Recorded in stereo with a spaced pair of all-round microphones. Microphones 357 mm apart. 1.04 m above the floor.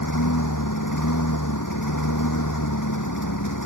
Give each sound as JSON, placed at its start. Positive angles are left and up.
{"t": 0.0, "sound": "a lawn mower", "side_deg": 60}